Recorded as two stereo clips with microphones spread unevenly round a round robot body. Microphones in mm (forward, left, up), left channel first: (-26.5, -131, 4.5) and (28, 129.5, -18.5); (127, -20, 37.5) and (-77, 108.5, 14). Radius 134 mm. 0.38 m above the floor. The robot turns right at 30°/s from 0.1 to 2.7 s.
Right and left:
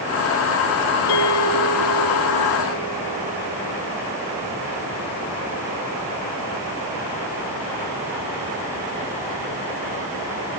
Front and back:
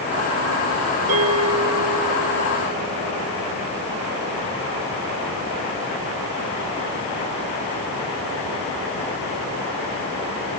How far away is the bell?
About 2.5 m.